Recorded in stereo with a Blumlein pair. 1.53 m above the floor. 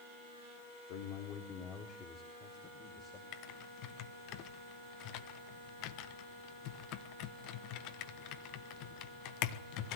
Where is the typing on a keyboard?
40° left, 1.3 m.